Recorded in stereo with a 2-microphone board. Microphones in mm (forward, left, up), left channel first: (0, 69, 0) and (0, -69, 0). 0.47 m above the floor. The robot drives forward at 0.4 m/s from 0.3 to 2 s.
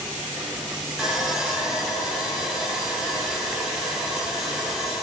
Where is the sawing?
5° right (ahead or behind), 0.5 m.